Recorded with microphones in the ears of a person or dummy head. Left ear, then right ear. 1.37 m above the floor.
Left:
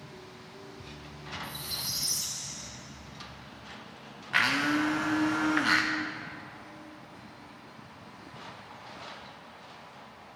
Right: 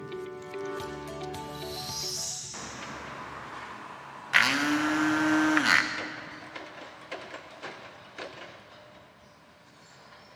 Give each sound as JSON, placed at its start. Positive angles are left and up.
{"t": 1.4, "sound": "a squeak", "side_deg": 40, "distance_m": 3.5}
{"t": 4.3, "sound": "a blender", "side_deg": -20, "distance_m": 0.7}